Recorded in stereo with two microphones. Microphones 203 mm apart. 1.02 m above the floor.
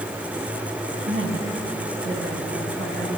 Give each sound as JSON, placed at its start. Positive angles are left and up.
{"t": 1.1, "sound": "a woman speaking", "side_deg": -90, "distance_m": 6.0}